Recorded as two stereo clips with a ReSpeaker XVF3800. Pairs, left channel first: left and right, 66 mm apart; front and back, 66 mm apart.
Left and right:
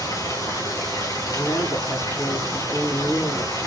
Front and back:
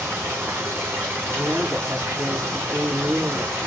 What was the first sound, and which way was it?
Running water, 125° left.